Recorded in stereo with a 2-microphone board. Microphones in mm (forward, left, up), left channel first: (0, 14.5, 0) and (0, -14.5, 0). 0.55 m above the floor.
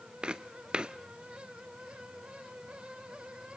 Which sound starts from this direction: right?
Footsteps, at 0.2 s.